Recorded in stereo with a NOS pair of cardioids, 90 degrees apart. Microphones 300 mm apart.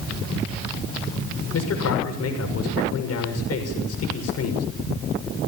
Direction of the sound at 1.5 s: 55° left.